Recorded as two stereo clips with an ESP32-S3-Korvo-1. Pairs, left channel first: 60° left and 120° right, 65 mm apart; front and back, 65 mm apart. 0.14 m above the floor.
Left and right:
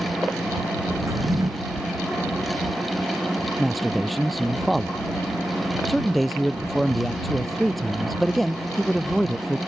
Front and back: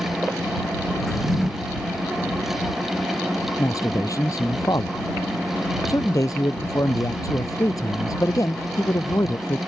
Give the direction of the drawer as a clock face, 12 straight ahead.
3 o'clock.